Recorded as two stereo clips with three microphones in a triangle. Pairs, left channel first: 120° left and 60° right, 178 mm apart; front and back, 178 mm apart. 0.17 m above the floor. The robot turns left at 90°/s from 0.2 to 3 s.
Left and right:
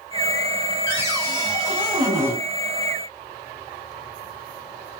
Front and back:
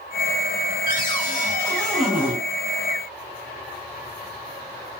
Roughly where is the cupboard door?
Ahead.